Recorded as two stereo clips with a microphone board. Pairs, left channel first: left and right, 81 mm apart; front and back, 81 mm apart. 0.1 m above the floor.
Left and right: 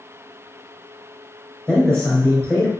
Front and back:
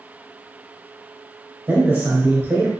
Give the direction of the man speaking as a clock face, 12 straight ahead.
7 o'clock.